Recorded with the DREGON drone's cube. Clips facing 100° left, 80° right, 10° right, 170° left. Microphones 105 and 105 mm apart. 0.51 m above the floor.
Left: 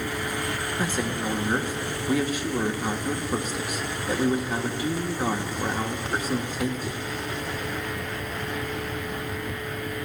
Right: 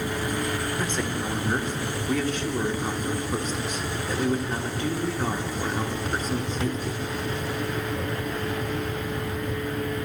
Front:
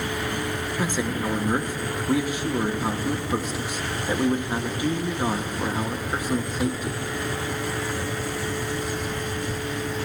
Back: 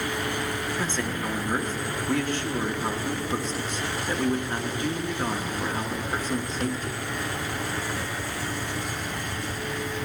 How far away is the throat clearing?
No throat clearing in this recording.